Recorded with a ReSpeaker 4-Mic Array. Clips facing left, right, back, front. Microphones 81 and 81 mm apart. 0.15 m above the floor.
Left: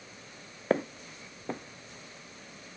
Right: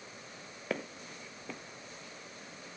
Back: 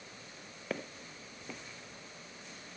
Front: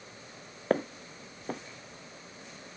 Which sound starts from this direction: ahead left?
Footsteps, at 0.7 s.